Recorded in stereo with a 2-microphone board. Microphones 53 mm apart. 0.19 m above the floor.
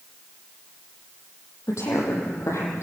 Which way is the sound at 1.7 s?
65° left (ahead or behind).